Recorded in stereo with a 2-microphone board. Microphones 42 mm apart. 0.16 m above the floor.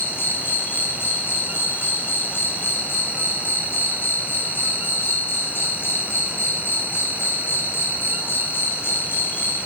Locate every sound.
0.0 s an insect: 70° left (ahead or behind), 2 m